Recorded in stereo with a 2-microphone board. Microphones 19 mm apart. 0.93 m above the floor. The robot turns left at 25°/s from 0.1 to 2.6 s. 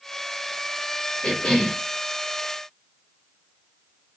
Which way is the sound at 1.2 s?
75° left (ahead or behind).